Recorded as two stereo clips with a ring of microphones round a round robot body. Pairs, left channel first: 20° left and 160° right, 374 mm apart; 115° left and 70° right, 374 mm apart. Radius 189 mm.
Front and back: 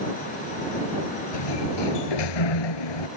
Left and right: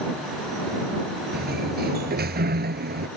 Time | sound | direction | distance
1.3 | a sliding door | straight ahead | ?